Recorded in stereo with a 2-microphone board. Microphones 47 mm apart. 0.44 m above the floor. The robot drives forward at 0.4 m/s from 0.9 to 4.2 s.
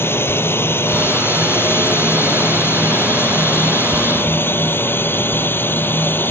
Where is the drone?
55° left (ahead or behind); by 6.3 s 50° left (ahead or behind).